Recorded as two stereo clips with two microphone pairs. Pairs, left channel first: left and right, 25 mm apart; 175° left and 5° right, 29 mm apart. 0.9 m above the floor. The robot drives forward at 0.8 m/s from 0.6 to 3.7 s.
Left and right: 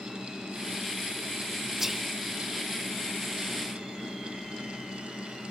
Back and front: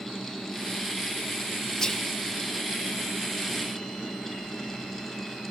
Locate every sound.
1.8 s whispering: 135° right, 0.5 m; by 2.1 s 155° right, 0.6 m